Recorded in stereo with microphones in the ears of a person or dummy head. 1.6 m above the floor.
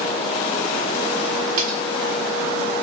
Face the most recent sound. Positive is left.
turn(degrees=-45)  # may be behind; listen again after turning